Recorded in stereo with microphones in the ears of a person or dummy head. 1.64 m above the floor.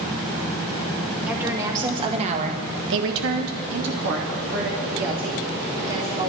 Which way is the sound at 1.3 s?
10° right (ahead or behind).